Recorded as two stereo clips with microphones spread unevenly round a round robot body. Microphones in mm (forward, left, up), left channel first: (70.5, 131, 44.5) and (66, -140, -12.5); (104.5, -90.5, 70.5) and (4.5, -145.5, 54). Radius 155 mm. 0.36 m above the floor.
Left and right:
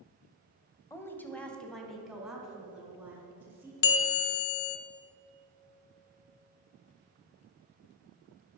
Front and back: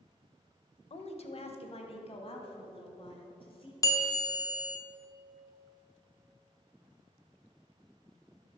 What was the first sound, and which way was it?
A woman speaking, 5° left.